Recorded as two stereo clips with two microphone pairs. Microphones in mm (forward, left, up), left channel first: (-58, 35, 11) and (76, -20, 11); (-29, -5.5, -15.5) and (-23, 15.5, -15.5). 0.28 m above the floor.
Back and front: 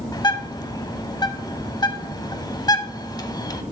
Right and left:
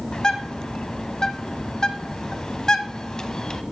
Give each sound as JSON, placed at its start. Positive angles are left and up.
{"t": 0.1, "sound": "a bird", "azimuth_deg": -145, "distance_m": 0.8}